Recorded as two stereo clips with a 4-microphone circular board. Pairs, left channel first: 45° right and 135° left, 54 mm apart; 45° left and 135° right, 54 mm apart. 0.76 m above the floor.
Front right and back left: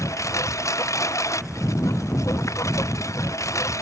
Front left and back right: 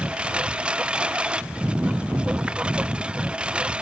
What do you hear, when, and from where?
0.0 s a lawn mower: 60° right